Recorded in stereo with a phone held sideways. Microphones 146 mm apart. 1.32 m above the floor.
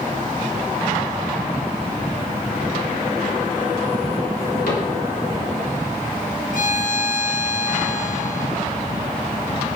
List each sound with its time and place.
4.7 s a cupboard door: 75° left (ahead or behind), 3.5 m
6.5 s a violin: 65° left (ahead or behind), 1.2 m